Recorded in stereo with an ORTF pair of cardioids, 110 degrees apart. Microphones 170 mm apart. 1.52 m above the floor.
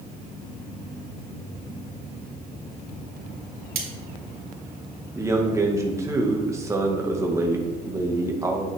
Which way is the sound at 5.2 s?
15° right.